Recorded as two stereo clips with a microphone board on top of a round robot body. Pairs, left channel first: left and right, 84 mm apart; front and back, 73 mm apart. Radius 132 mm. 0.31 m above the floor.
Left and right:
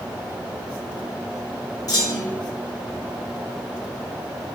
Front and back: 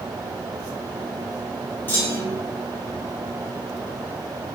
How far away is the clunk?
About 1.7 m.